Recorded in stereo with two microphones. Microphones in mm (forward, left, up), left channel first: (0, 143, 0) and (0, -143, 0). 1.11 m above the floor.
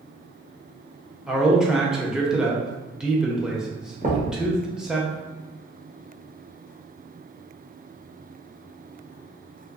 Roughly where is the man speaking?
Centre.